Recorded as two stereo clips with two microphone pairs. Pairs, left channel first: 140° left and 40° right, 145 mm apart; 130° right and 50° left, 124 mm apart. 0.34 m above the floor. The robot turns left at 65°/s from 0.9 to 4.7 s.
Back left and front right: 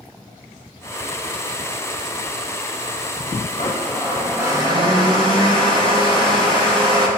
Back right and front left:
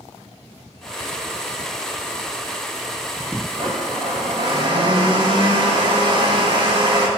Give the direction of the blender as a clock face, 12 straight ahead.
9 o'clock.